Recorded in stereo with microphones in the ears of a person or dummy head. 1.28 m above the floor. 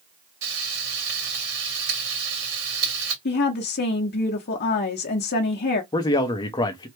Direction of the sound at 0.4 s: 60° right (ahead or behind).